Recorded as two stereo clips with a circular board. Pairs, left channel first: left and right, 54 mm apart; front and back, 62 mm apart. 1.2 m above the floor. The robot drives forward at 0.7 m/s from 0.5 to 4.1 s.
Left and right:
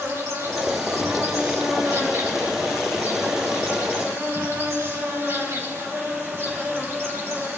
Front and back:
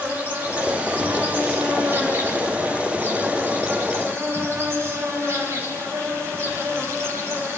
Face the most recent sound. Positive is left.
turn(degrees=-130)